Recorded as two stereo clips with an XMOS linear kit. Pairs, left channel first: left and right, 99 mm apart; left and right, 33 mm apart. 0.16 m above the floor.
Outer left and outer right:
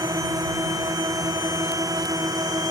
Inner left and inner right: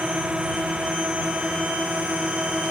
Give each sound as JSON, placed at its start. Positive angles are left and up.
{"t": 0.0, "sound": "a drone", "side_deg": -35}